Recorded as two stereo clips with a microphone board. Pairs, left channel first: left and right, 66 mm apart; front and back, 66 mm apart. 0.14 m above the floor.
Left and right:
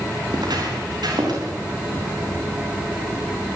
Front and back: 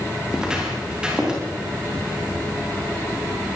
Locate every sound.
0.3 s footsteps: 100° right, 7.5 m